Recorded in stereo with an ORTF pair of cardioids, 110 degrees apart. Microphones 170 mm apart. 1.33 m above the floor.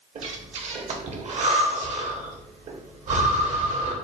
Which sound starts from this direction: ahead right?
Breathing, at 0.1 s.